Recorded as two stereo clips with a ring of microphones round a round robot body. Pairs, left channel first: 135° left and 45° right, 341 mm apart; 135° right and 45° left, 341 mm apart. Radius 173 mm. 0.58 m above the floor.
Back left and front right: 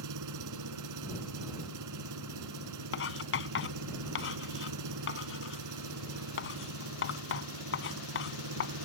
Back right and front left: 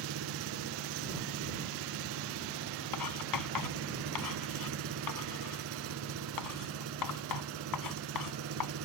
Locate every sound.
0.0 s an engine running: 5° right
2.9 s writing: 170° right